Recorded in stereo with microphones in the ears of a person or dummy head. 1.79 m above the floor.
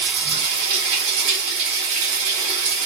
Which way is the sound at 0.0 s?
65° right (ahead or behind).